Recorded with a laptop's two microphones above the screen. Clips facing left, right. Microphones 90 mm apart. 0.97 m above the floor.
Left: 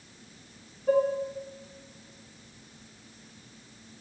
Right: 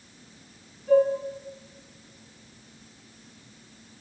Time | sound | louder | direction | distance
0.9 | dishes clattering | right 4 dB | 55° left (ahead or behind) | 7.5 m